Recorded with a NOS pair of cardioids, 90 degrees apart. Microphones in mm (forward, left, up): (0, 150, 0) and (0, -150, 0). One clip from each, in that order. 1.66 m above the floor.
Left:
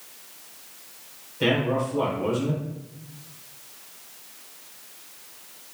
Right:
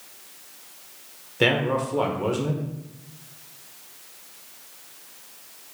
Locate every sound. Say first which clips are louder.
1.4 s a man speaking: right 2 dB; 50° right, 1.1 m